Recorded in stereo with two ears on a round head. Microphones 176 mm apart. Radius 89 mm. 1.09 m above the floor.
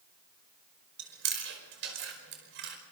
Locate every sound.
1.0 s chewing: 70° right (ahead or behind), 5 m